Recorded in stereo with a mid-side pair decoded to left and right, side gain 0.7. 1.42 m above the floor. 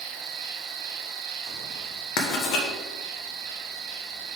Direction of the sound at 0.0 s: 65° right.